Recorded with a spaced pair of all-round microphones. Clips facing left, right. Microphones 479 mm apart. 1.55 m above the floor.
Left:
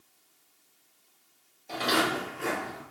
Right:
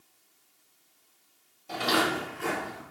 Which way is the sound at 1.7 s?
35° right (ahead or behind).